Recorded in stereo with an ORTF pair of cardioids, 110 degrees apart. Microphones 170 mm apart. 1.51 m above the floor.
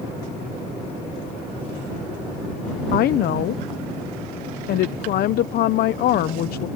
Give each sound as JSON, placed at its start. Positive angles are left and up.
{"t": 2.9, "sound": "a woman speaking", "azimuth_deg": 65}